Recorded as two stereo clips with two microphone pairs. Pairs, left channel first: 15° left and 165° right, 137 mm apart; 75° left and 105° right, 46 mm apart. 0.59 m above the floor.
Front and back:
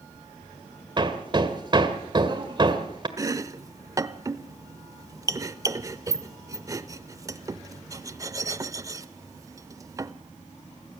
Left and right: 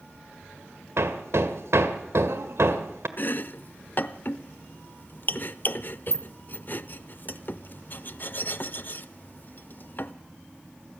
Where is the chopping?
125° left, 0.6 m.